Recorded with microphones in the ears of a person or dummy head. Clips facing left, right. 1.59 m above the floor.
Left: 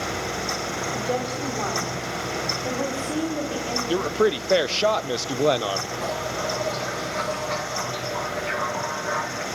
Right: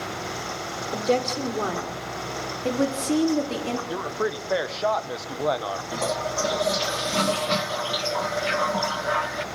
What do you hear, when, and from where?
0.9 s a woman speaking: 45° right (ahead or behind), 6 m; by 3.8 s 25° right (ahead or behind), 4.5 m
3.9 s a man speaking: 40° left (ahead or behind), 1.0 m
5.9 s a toilet flushing: 50° right (ahead or behind), 1.3 m